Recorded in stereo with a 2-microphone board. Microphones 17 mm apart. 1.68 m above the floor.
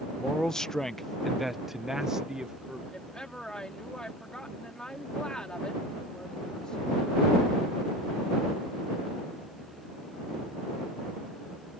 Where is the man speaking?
55° left (ahead or behind); by 2.8 s 60° right (ahead or behind).